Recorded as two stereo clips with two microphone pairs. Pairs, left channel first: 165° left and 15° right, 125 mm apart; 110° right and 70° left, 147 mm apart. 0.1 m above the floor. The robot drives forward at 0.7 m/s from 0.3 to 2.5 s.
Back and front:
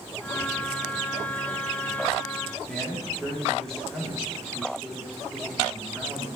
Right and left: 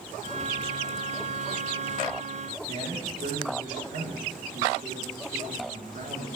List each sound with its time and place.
2.7 s a man speaking: 80° left, 6.5 m